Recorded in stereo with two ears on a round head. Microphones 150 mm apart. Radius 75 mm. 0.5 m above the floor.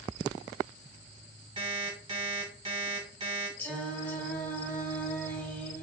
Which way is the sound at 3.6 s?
10° left (ahead or behind).